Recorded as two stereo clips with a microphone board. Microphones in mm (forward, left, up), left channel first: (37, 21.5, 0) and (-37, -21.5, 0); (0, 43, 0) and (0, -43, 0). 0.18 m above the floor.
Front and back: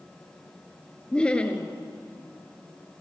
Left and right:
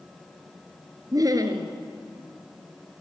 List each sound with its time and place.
1.1 s laughter: 45° right, 2.5 m